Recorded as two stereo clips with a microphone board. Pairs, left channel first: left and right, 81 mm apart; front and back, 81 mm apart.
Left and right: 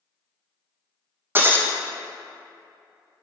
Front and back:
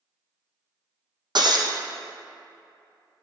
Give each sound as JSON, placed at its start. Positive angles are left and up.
{"t": 1.4, "sound": "breaking glass", "azimuth_deg": -155, "distance_m": 1.2}